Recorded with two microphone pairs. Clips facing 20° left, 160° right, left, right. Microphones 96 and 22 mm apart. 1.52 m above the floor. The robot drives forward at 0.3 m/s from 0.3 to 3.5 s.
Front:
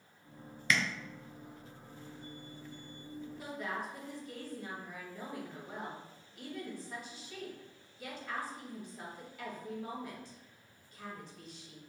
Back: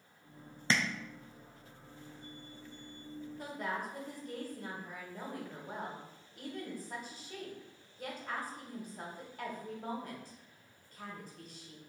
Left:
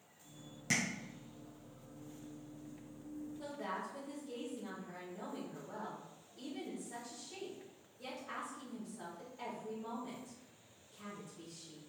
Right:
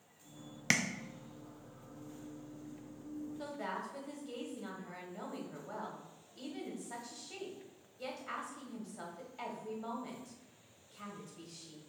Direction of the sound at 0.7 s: 105° right.